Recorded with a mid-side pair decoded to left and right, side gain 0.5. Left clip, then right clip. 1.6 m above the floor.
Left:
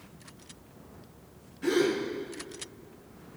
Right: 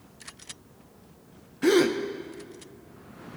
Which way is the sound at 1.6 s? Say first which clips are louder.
Right 5 dB; 60° right.